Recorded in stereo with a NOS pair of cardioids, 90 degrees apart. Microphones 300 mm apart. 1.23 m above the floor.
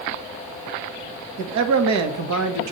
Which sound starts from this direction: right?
A man speaking, at 1.4 s.